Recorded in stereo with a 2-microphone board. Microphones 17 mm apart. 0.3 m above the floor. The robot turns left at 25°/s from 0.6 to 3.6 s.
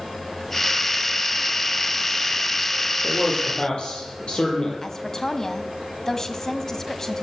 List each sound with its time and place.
3.0 s a man speaking: 55° left (ahead or behind), 9 m; by 4.7 s 70° left (ahead or behind), 9 m
4.8 s a woman speaking: 30° left (ahead or behind), 2 m